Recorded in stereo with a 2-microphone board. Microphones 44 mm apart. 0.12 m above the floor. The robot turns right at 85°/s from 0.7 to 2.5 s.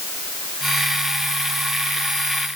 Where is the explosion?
I don't hear an explosion.